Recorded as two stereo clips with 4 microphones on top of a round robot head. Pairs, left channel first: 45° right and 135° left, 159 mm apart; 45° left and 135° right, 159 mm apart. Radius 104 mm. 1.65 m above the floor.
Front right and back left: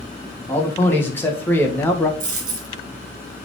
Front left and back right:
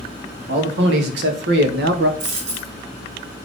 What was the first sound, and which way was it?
A man speaking, 120° right.